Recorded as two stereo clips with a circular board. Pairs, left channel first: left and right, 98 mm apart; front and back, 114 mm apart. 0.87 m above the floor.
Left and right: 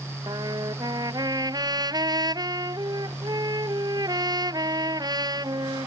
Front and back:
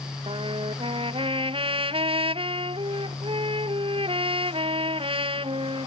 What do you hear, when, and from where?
0.3 s a trumpet: 140° right